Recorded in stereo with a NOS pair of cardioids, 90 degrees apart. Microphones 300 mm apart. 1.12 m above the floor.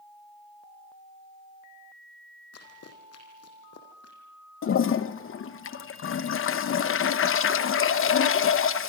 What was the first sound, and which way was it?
Running footsteps, 55° left.